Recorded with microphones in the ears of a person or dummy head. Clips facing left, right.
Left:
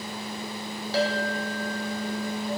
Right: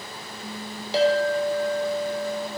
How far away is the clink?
About 0.5 m.